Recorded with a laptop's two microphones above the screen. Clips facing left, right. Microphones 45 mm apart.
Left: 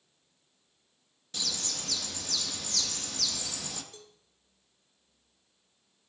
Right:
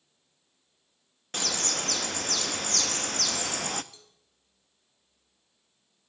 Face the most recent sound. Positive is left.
turn(degrees=50)  # may be behind; listen again after turning